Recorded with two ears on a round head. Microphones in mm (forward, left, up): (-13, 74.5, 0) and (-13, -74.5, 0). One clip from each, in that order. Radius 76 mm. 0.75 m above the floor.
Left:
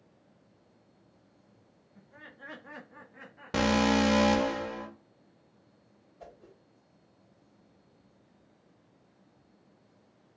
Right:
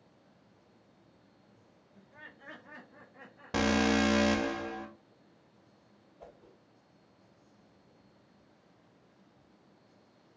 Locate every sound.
1.9 s laughter: 10° right (ahead or behind), 1.3 m; by 4.5 s 55° left (ahead or behind), 2.5 m
3.5 s an alarm: centre (ahead or behind), 1.4 m
6.2 s a whoosh: 65° left (ahead or behind), 3 m